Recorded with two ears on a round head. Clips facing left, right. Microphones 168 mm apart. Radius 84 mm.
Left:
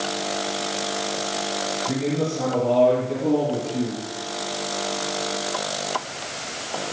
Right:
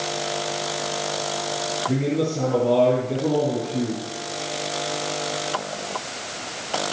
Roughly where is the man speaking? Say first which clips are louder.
Right 2 dB; centre.